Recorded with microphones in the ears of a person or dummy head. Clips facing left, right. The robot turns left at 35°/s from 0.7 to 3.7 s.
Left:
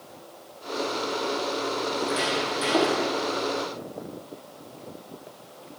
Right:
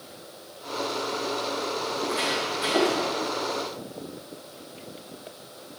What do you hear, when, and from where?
1.9 s footsteps: 25° left (ahead or behind), 3.5 m; by 3.0 s 45° left (ahead or behind), 4 m